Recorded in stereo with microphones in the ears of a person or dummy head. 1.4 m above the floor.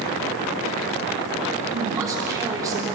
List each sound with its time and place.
1.6 s a man speaking: 20° right (ahead or behind), 3.5 m